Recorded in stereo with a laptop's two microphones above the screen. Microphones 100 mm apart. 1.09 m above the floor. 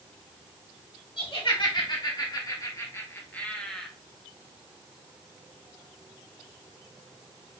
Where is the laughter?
55° left (ahead or behind), 2.5 m; by 3.9 s 5° left (ahead or behind), 1.5 m.